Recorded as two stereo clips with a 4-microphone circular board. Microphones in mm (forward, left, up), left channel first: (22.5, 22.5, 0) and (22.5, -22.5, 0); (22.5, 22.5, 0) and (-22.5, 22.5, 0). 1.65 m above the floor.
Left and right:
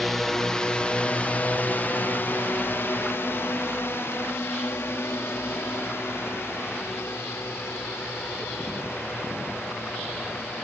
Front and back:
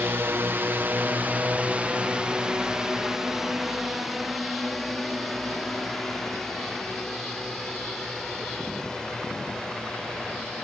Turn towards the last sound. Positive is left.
turn(degrees=75)